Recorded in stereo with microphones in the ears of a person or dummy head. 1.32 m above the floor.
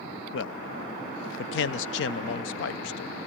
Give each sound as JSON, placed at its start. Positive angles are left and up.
{"t": 0.3, "sound": "a man speaking", "side_deg": 60, "distance_m": 0.5}